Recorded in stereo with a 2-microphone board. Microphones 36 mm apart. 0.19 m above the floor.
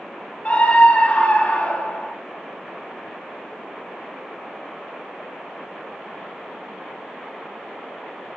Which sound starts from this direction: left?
A scream, at 0.5 s.